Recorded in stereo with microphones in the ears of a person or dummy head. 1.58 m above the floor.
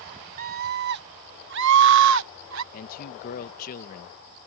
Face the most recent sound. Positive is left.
turn(degrees=50)  # may be behind; listen again after turning